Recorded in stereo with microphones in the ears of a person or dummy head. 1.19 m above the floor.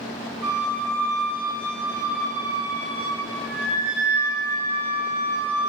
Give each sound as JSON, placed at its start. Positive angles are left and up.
{"t": 0.4, "sound": "a flute", "side_deg": -10, "distance_m": 0.8}